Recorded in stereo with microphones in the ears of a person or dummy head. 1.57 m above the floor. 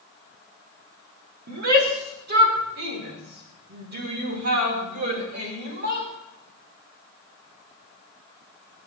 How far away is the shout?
About 4.5 m.